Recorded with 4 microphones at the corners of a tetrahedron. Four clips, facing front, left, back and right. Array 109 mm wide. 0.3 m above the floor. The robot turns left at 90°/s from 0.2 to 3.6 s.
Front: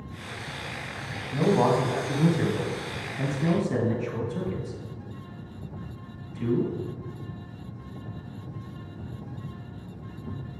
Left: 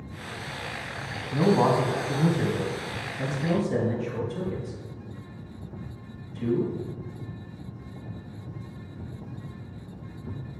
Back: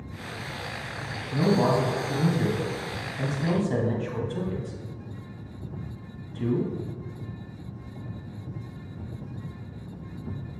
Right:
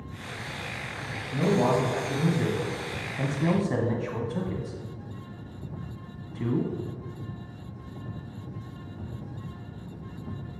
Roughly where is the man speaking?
Left.